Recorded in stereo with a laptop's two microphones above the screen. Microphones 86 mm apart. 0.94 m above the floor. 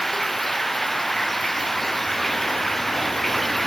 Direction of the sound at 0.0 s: Centre (ahead or behind).